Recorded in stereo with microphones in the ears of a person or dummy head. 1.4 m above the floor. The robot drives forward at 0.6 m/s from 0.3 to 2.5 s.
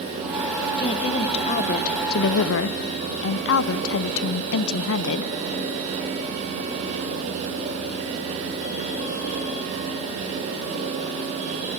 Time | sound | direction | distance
0.8 | a woman speaking | 25° left (ahead or behind) | 1.3 m